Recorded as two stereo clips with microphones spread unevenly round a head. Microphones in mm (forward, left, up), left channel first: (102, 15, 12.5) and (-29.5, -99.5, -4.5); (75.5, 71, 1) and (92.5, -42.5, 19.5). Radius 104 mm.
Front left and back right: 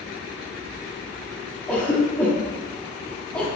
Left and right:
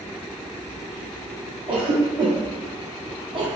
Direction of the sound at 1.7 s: 40° right.